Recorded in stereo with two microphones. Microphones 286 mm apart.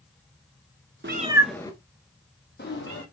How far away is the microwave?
No microwave in this recording.